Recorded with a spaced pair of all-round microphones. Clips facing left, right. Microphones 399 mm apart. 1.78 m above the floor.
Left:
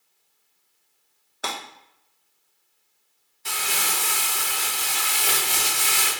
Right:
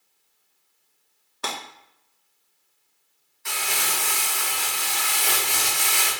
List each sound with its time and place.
1.4 s breaking glass: 10° right (ahead or behind), 1.2 m
3.5 s crumpling: 50° left (ahead or behind), 1.4 m